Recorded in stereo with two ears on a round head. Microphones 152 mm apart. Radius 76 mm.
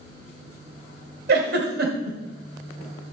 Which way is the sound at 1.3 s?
65° right (ahead or behind).